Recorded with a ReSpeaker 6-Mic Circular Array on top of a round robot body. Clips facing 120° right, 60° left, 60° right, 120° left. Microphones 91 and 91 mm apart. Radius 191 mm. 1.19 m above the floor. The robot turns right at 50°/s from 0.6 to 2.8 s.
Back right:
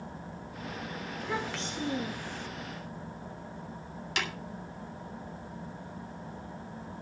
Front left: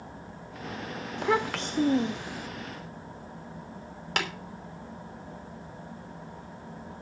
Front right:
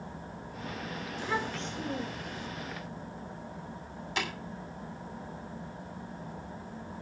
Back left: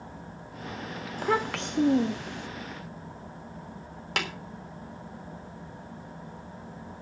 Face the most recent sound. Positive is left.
turn(degrees=100)